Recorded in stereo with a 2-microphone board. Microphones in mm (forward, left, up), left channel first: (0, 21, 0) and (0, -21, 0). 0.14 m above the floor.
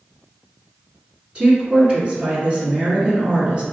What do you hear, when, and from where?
1.4 s a woman speaking: 25° right (ahead or behind), 1.6 m